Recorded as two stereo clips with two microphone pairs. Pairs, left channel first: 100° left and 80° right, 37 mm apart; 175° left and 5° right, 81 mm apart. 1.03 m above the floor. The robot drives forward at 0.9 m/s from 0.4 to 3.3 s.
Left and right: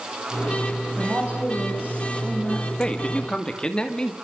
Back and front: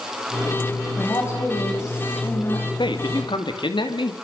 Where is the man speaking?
165° left, 2 m.